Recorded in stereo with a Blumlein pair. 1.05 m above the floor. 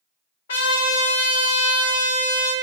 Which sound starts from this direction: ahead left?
A trumpet, at 0.5 s.